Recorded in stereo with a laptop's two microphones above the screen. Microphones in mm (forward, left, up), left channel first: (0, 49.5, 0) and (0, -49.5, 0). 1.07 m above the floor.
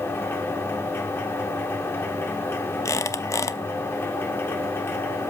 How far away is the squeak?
About 0.6 m.